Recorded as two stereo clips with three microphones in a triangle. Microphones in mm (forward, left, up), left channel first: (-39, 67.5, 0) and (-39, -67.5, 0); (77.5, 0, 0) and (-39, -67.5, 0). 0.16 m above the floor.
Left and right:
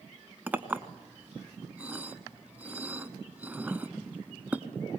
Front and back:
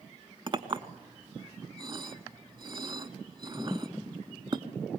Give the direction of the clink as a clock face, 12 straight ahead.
5 o'clock.